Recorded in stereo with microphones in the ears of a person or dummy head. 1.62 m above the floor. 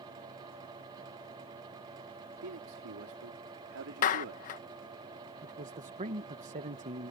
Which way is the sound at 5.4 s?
35° right (ahead or behind).